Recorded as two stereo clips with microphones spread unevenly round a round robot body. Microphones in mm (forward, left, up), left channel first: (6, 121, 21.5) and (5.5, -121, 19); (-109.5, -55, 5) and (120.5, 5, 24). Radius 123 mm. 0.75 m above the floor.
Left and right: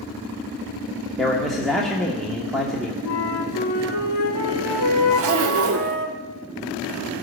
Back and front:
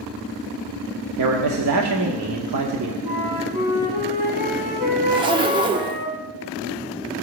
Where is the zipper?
55° right, 1.0 m.